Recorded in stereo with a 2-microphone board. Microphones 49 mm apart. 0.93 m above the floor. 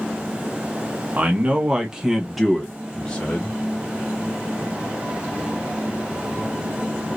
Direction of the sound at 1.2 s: 35° right (ahead or behind).